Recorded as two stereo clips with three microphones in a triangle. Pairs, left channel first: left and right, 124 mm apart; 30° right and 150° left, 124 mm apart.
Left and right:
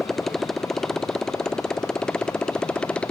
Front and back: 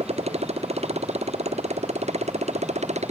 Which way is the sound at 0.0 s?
Straight behind.